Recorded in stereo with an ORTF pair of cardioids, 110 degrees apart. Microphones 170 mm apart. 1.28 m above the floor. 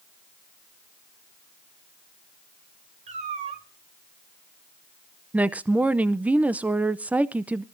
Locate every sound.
3.1 s a cat meowing: 45° right, 2.5 m
5.3 s a woman speaking: 10° right, 0.5 m